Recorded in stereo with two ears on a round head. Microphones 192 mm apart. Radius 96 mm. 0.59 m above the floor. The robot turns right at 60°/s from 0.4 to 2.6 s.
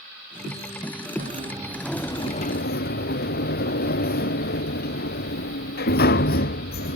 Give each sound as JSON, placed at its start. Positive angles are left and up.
{"t": 1.2, "sound": "a sliding door", "azimuth_deg": -40}